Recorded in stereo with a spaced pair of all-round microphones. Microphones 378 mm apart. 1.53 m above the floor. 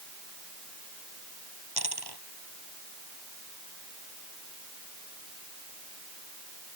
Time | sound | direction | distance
1.8 | a dropped coin | 80° right | ?